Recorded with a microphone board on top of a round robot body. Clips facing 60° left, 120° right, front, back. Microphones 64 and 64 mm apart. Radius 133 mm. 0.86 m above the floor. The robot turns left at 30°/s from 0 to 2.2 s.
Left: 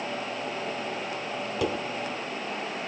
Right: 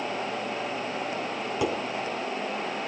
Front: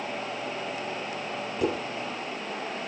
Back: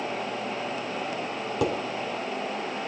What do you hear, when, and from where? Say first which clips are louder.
1.6 s dishes clattering: right 1 dB, back 1 dB; 155° left, 3.5 m; by 1.8 s 150° left, 3.5 m